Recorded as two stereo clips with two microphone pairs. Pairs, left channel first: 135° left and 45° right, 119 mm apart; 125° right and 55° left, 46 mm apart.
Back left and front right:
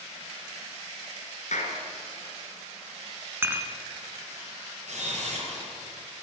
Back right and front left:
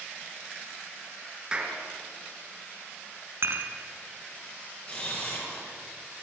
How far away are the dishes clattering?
About 2 m.